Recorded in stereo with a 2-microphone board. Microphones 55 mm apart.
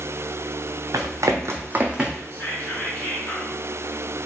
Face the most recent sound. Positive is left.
turn(degrees=30)  # may be behind; listen again after turning